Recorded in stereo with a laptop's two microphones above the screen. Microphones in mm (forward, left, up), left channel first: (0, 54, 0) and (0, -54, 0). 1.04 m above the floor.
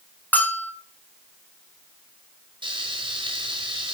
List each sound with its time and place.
0.3 s a bell: 15° left (ahead or behind), 2.5 m
2.6 s frying: 45° right (ahead or behind), 6.5 m